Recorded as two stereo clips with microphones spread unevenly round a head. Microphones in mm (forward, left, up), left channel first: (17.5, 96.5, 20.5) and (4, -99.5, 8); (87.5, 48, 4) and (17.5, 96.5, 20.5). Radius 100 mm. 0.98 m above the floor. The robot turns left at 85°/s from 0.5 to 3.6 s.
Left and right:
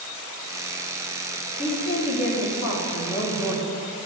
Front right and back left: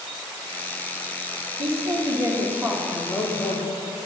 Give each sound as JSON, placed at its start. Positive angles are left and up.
{"t": 1.6, "sound": "a woman speaking", "azimuth_deg": 160, "distance_m": 2.5}